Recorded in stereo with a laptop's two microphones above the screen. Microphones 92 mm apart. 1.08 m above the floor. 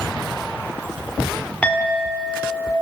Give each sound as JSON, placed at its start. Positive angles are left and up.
{"t": 1.6, "sound": "a clink", "side_deg": 15, "distance_m": 1.9}